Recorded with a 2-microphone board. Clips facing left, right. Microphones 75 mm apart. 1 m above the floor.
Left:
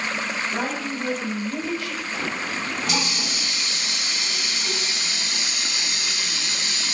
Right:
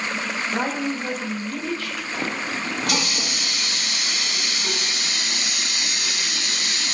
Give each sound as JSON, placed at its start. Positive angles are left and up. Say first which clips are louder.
{"t": 0.5, "sound": "a woman speaking", "louder": "right 2 dB", "side_deg": -30, "distance_m": 1.1}
{"t": 2.1, "sound": "a running tap", "louder": "right 2 dB", "side_deg": -60, "distance_m": 0.7}